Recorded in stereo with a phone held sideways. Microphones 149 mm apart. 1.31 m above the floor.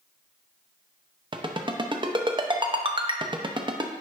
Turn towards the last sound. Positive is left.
turn(degrees=-30)  # may be behind; listen again after turning